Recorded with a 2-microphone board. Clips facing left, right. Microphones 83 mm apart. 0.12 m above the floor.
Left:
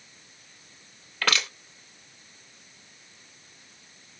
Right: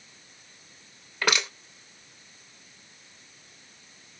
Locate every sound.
1.2 s crushing: 15° right (ahead or behind), 2 m